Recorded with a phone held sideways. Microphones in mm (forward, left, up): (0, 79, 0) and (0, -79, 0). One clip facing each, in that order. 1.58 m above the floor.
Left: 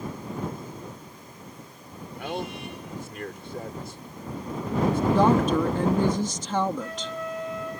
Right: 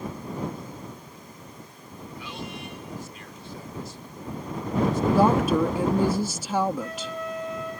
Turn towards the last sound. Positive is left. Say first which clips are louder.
# even
turn(degrees=-10)  # may be behind; listen again after turning